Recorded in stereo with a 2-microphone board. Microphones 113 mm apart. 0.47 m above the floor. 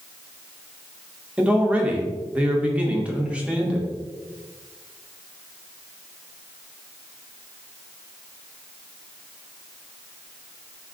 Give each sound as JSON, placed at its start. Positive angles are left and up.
{"t": 1.4, "sound": "a man speaking", "side_deg": -10, "distance_m": 0.7}